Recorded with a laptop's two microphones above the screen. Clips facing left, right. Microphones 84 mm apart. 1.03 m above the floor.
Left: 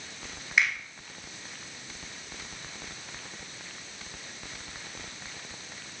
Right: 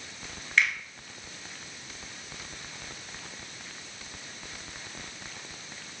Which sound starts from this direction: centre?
A finger snap, at 0.6 s.